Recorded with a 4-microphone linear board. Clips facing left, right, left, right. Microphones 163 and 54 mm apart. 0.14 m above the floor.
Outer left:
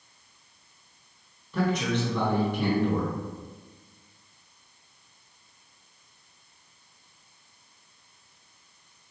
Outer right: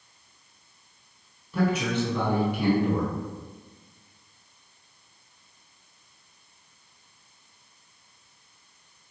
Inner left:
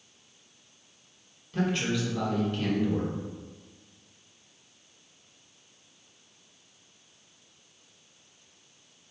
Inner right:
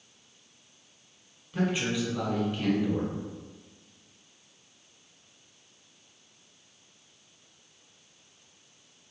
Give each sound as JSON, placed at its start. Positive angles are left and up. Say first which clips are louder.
{"t": 1.5, "sound": "a man speaking", "louder": "outer right 1 dB, even", "side_deg": -10, "distance_m": 1.1}